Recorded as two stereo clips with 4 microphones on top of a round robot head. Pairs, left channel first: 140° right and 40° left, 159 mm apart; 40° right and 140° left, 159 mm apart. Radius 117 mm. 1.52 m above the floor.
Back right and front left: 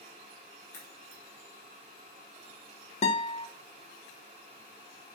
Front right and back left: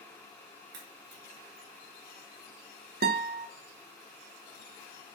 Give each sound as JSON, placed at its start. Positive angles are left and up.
{"t": 0.7, "sound": "a crack", "azimuth_deg": 145, "distance_m": 3.5}
{"t": 3.0, "sound": "a guitar", "azimuth_deg": 170, "distance_m": 1.1}